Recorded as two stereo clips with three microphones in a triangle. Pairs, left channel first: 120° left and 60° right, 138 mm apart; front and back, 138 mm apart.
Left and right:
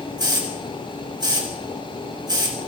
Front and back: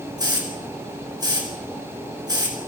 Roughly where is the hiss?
Behind right.